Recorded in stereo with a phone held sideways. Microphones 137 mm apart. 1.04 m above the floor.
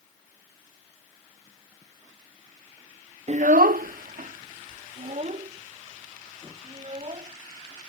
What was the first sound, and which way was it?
A child speaking, 50° right (ahead or behind).